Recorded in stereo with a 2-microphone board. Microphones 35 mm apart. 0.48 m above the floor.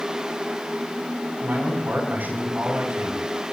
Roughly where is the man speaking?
Right.